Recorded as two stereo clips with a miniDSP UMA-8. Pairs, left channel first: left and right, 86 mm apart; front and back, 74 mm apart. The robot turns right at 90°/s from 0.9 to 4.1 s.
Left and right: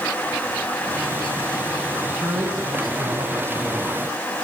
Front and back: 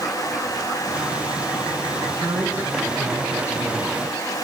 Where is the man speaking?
170° right, 3 m; by 4.0 s 10° left, 3 m.